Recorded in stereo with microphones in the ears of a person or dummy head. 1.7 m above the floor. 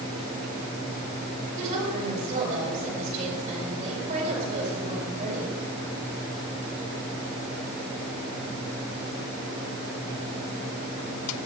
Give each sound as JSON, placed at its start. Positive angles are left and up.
{"t": 1.6, "sound": "a woman speaking", "side_deg": -45, "distance_m": 5.5}